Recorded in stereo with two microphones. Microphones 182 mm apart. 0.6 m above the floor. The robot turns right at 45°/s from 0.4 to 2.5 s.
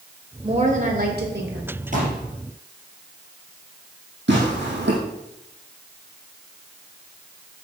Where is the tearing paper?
85° right, 4.5 m.